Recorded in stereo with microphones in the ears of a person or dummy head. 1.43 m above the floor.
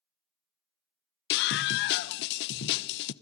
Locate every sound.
1.3 s a scream: 60° left (ahead or behind), 1.0 m